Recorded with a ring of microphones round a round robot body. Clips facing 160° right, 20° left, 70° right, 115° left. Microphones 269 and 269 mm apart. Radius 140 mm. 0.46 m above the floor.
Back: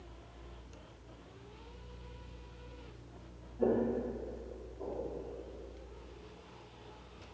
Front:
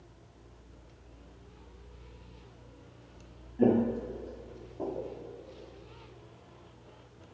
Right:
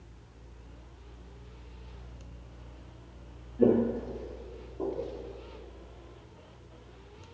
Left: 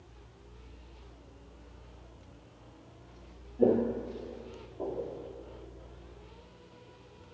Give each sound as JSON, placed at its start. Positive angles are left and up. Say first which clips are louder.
{"t": 3.6, "sound": "footsteps", "louder": "front 5 dB, right 2 dB", "azimuth_deg": 5, "distance_m": 0.6}